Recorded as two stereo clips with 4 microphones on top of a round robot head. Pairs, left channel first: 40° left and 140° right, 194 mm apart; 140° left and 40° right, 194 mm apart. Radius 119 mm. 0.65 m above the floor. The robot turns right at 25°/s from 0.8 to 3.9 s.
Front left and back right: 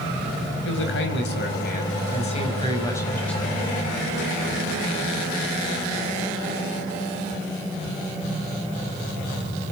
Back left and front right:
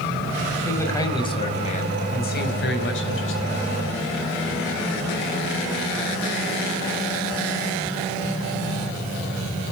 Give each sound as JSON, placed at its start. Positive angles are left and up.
{"t": 0.7, "sound": "a man speaking", "azimuth_deg": 60, "distance_m": 5.0}